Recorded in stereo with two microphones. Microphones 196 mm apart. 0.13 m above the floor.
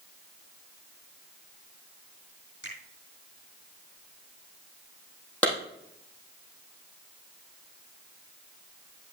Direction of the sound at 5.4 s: 5° left (ahead or behind).